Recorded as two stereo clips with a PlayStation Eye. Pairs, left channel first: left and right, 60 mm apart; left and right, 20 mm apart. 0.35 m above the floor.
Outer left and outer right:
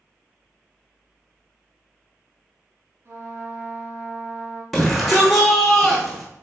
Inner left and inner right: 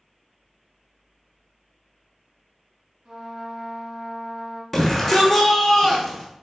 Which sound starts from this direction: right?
A trumpet, at 3.0 s.